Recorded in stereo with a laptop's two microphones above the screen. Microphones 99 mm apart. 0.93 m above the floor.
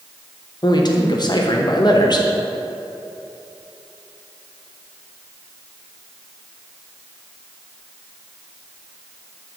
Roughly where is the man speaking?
Left.